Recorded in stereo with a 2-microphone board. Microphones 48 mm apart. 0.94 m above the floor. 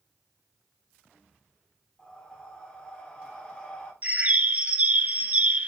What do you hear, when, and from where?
2.0 s breathing: 20° left (ahead or behind), 2.5 m
4.0 s a bird: 30° right (ahead or behind), 0.7 m